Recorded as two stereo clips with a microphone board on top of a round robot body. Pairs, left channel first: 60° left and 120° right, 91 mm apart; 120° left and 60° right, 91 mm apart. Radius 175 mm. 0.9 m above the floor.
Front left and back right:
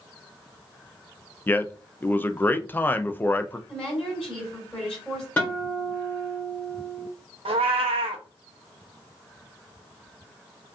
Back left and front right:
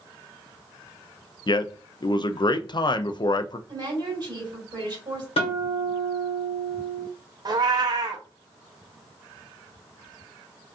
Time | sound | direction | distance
1.5 | a man speaking | 120° left | 0.6 m
3.7 | a woman speaking | 25° right | 2 m
5.4 | a guitar | 130° left | 1.2 m
7.5 | a cat meowing | 105° right | 0.7 m